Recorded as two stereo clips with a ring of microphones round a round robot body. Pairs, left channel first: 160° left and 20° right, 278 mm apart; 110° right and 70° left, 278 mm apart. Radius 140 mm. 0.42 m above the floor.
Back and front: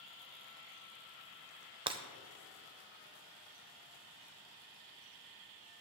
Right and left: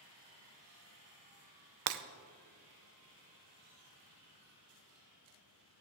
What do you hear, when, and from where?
1.9 s breaking glass: 50° left, 0.6 m